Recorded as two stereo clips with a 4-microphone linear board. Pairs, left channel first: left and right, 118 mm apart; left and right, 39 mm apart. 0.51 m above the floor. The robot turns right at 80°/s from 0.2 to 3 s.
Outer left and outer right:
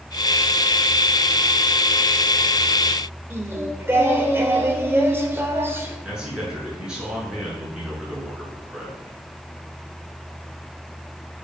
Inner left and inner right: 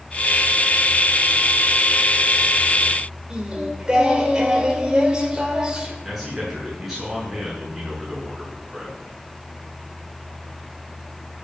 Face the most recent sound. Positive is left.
turn(degrees=-5)  # may be behind; listen again after turning